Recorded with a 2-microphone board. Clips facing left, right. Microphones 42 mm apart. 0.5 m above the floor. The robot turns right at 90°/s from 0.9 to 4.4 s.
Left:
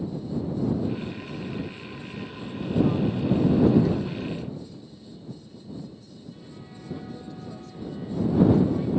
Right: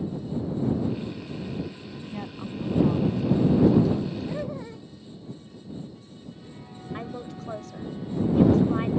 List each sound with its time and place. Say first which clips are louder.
2.1 s a woman speaking: right 2 dB; 70° right; by 4.2 s 115° left
4.3 s laughter: right 2 dB; 70° right (ahead or behind); by 4.8 s 80° right
6.9 s a woman speaking: right 4 dB; 65° right (ahead or behind)